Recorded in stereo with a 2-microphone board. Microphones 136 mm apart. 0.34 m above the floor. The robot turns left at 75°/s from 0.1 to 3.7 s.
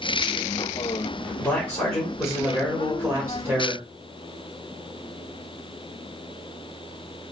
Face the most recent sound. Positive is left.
turn(degrees=-20)  # may be behind; listen again after turning